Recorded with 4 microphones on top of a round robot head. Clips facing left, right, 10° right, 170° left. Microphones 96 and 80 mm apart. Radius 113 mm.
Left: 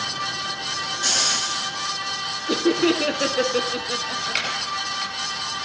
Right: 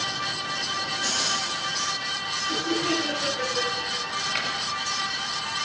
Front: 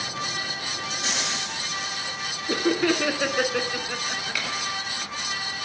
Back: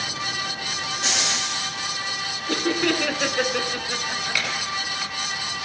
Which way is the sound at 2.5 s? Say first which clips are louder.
Left 7 dB, front 1 dB; 65° left.